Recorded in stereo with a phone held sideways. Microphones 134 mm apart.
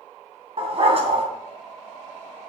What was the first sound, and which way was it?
A dog barking, 45° right (ahead or behind).